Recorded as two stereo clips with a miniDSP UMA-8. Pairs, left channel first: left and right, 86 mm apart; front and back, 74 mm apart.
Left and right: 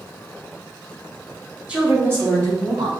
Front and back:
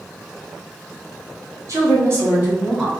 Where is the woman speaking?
160° right, 1.7 m; by 2.9 s 110° right, 2 m.